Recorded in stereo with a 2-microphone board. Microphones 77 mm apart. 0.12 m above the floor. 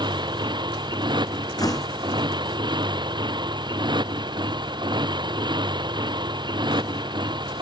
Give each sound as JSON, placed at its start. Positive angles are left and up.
{"t": 0.0, "sound": "a motorcycle", "side_deg": -80}
{"t": 1.6, "sound": "a door slam", "side_deg": 55}